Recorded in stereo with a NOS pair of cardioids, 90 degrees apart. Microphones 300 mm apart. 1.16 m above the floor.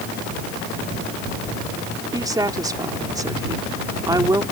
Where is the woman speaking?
15° right.